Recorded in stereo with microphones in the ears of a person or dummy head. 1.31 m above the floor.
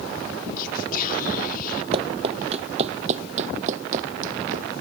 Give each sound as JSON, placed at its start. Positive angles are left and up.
{"t": 0.6, "sound": "whispering", "side_deg": 50}
{"t": 1.9, "sound": "running footsteps", "side_deg": -30}